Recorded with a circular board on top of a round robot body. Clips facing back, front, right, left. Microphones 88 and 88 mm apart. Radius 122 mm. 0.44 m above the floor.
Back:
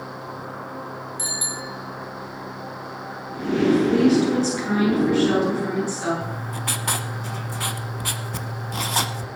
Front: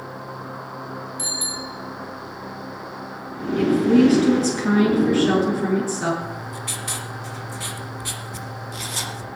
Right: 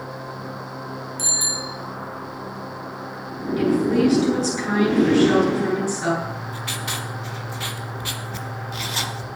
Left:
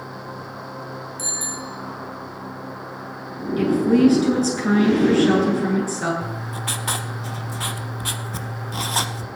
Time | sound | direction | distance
1.2 | a bicycle bell | 120° right | 5.5 m
3.6 | a woman speaking | 45° left | 9 m
6.2 | writing | 140° left | 1.0 m